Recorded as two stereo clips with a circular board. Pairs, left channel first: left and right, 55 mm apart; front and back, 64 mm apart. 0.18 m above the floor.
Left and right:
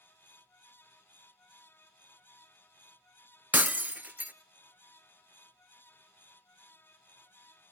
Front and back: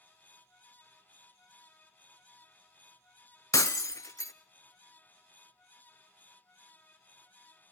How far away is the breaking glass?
About 0.7 m.